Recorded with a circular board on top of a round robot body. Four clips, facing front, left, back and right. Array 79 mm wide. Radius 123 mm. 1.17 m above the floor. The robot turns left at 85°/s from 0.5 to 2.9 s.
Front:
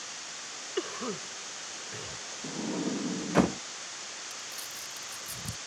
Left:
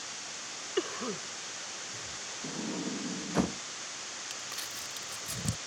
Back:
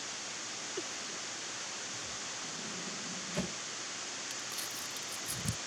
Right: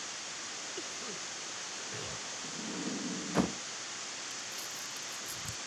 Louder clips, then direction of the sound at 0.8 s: Left 14 dB, front 11 dB; 60° left.